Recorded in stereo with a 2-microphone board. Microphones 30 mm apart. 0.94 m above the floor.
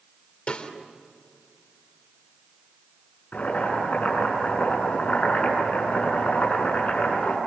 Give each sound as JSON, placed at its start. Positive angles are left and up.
{"t": 0.5, "sound": "a snare drum", "side_deg": 40, "distance_m": 3.0}
{"t": 3.3, "sound": "boiling", "side_deg": 50, "distance_m": 8.0}